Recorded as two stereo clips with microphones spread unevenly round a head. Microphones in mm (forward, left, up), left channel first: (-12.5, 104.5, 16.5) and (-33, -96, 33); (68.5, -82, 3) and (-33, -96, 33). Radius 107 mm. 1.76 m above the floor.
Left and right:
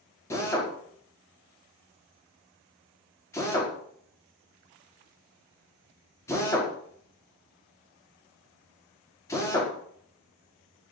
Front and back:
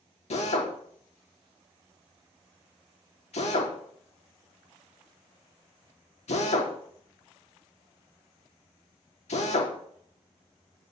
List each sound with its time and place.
0.3 s a drill: 5° left, 4.5 m